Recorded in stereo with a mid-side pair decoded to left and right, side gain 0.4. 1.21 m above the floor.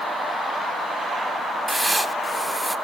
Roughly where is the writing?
Ahead.